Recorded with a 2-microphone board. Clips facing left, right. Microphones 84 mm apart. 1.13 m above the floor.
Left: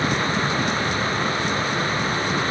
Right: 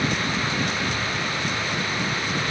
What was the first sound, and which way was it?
Only background noise.